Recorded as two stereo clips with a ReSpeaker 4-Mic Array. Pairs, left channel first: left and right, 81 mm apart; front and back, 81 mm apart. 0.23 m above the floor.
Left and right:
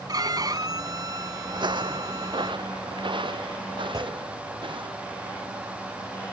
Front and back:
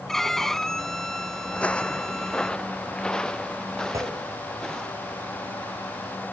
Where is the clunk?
130° right.